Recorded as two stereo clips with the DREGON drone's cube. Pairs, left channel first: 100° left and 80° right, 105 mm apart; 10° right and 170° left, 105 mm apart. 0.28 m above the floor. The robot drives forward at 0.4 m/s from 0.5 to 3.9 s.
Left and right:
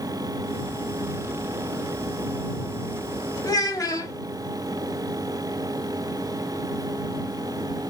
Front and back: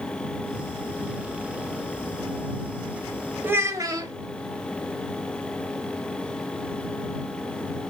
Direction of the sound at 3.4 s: 110° left.